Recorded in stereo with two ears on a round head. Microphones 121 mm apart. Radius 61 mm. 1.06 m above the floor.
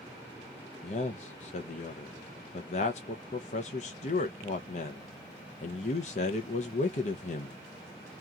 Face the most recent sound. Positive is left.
turn(degrees=55)  # may be behind; listen again after turning